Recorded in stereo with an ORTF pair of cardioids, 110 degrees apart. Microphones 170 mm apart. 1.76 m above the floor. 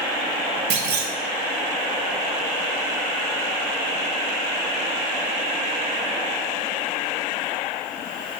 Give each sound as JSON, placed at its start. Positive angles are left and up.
{"t": 0.7, "sound": "a clunk", "azimuth_deg": -70, "distance_m": 0.6}